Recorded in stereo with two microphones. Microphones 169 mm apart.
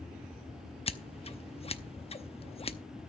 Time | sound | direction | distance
0.9 | scissors | 35° left (ahead or behind) | 0.8 m